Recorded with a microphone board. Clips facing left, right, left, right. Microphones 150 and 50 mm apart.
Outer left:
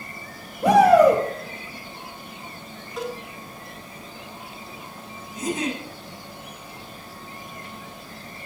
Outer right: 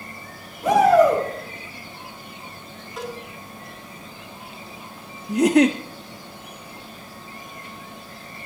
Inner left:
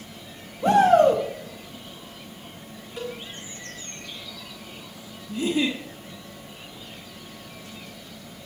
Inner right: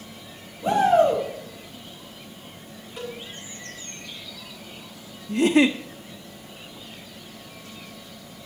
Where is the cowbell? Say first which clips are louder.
Outer left 2 dB, inner left 1 dB; centre (ahead or behind), 3.5 m.